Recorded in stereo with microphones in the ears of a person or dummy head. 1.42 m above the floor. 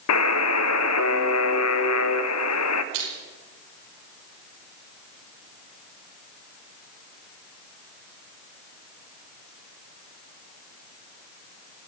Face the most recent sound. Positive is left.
turn(degrees=-75)  # may be behind; listen again after turning